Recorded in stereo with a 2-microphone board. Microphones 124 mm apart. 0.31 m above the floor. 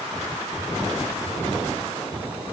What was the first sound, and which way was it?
Only background noise.